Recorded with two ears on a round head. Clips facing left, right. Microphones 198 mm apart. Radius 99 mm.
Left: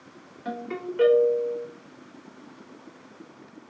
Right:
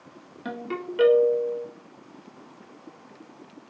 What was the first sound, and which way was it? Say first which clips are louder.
A ringtone: even; 50° right (ahead or behind).